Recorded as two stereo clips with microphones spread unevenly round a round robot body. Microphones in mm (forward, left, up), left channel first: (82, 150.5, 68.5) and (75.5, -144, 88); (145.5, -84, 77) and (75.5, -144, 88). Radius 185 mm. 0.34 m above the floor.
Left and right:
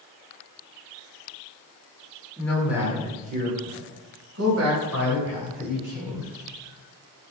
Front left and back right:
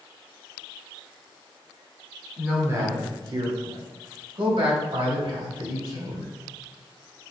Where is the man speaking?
150° left, 1.5 m; by 6.3 s 120° right, 4.5 m.